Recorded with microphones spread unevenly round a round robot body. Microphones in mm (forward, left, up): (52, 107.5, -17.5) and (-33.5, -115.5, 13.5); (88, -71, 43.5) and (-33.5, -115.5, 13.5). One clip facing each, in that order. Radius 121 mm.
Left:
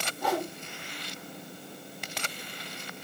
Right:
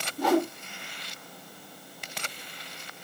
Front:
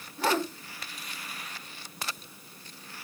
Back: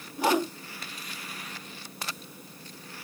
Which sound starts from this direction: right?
A whoosh, at 0.2 s.